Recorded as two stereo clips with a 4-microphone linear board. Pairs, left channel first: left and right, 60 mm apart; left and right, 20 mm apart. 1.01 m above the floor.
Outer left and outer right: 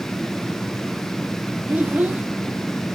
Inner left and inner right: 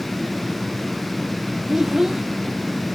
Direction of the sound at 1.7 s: 30° right (ahead or behind).